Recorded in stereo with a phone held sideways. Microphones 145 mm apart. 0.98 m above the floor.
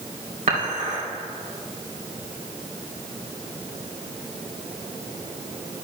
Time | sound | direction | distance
0.5 | dishes clattering | 70° right (ahead or behind) | 3 m